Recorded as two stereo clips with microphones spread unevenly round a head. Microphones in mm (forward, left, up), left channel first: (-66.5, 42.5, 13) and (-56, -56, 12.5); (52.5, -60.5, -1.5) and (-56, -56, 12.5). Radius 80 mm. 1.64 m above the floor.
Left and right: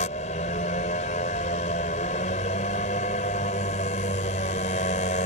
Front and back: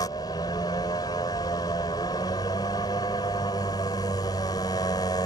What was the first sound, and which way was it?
A motorcycle, 70° left.